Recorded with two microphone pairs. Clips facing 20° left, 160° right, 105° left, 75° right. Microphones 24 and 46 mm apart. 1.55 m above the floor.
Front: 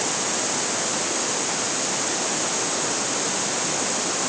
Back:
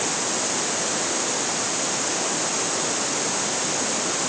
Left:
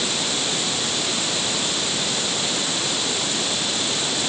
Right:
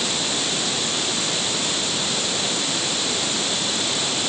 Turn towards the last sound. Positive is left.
No sound to turn to.